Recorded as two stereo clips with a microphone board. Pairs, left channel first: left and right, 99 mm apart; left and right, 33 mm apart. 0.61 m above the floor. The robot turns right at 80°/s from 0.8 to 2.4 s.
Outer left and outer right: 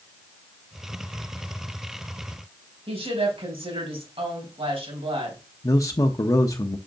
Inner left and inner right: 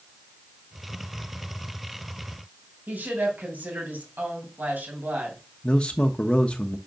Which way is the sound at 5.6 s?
35° left (ahead or behind).